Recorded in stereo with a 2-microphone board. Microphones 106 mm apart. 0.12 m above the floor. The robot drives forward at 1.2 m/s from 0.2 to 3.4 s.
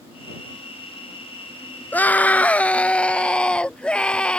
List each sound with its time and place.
1.9 s a scream: 15° left (ahead or behind); by 4.4 s 10° left (ahead or behind)